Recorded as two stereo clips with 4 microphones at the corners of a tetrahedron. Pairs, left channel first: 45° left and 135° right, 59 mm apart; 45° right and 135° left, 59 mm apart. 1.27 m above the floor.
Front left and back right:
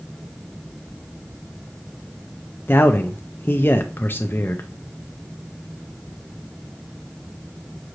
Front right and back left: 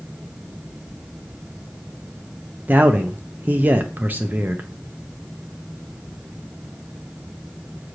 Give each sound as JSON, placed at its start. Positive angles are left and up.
{"t": 2.7, "sound": "a man speaking", "azimuth_deg": 85, "distance_m": 0.5}